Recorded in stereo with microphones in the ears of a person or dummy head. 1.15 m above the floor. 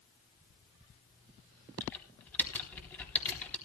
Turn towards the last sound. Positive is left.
turn(degrees=10)  # may be behind; listen again after turning